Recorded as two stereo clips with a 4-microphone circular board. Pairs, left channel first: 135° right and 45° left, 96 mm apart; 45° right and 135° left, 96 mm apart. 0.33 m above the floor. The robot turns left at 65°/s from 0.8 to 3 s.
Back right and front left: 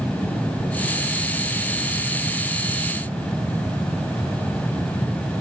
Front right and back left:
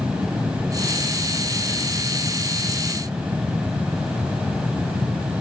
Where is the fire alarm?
I don't hear a fire alarm.